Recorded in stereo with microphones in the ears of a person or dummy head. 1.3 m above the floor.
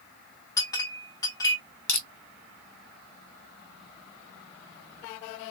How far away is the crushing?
About 1.0 m.